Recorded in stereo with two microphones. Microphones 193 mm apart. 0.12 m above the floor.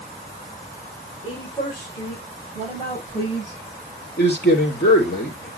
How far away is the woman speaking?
About 8.5 m.